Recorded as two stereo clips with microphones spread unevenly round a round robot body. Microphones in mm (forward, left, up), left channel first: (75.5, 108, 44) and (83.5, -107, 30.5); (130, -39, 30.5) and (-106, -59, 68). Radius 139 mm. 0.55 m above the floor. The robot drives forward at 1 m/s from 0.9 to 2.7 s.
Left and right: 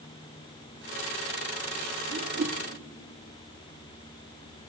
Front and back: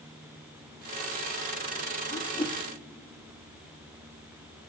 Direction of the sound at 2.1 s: 45° right.